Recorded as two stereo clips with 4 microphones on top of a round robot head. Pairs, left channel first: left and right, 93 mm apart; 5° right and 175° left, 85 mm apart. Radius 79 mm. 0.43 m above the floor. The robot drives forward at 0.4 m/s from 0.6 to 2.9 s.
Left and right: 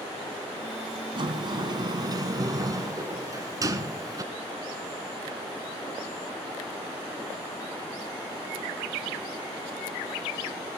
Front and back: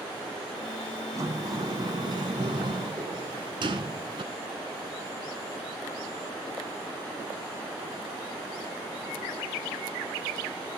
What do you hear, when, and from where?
1.1 s a sliding door: 125° right, 1.6 m; by 4.2 s 140° right, 2 m